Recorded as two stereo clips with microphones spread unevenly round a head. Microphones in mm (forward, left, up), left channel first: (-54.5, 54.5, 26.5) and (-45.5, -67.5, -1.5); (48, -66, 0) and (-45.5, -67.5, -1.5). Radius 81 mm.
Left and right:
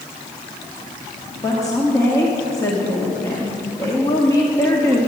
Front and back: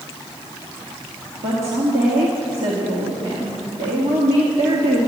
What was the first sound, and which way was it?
A woman speaking, 160° left.